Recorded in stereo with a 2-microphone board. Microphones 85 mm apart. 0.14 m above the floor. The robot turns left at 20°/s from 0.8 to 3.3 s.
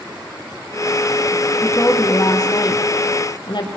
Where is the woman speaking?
145° left, 5 m; by 3.7 s 115° left, 5 m.